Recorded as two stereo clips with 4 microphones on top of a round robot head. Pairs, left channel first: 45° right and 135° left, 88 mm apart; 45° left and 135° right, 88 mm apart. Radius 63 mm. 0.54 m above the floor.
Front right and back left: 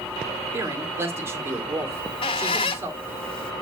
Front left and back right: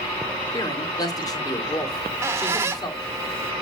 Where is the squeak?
70° right, 0.6 m.